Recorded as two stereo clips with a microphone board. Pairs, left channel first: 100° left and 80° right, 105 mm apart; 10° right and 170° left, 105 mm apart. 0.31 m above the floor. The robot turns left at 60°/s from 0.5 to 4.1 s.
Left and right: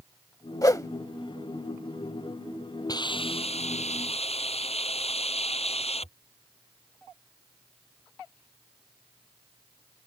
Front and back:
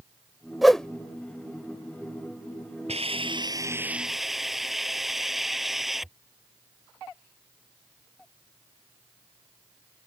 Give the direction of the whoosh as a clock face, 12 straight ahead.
9 o'clock.